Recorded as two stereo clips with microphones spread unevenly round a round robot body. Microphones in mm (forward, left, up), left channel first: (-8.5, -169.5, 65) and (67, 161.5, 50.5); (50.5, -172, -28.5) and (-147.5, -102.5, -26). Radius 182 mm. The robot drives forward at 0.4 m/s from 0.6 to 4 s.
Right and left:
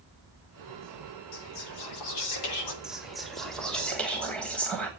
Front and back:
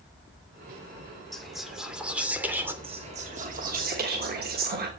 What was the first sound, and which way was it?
Whispering, 110° right.